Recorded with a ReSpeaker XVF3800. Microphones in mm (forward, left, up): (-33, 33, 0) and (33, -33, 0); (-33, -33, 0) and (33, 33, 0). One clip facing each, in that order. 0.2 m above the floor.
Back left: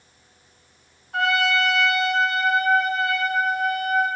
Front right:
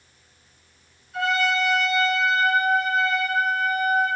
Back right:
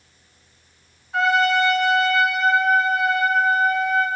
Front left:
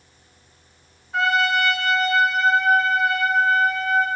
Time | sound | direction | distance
1.1 | a trumpet | 135° left | 1.6 m